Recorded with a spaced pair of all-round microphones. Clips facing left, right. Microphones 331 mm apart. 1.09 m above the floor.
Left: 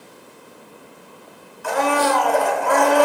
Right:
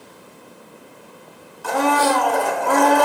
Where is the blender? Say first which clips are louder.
Right 1 dB; 45° right (ahead or behind), 1.9 m.